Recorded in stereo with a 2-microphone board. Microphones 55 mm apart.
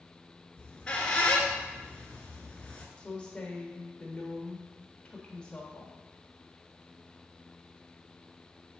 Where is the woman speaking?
20° left (ahead or behind), 1.3 m.